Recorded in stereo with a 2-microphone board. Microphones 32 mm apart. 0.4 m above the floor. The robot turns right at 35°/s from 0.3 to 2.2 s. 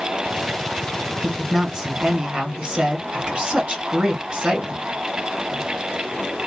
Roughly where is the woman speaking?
Behind.